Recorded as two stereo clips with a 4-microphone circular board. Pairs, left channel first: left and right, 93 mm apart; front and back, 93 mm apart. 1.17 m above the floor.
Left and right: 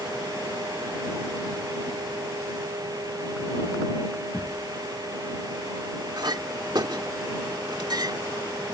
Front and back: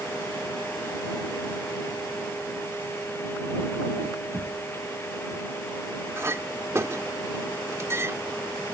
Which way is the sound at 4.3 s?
125° left.